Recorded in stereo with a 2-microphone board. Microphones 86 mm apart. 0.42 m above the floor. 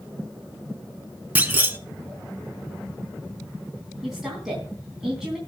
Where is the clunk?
20° right (ahead or behind), 0.7 m.